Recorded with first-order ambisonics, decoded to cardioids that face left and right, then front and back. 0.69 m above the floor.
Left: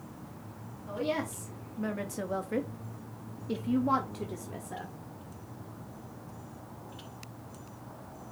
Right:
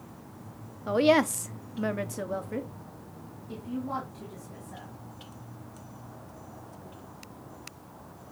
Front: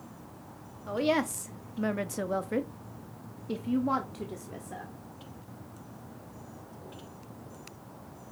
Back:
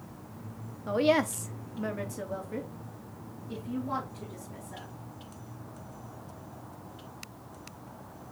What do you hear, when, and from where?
0.9 s a woman speaking: 105° right, 0.8 m; by 4.9 s 50° left, 1.6 m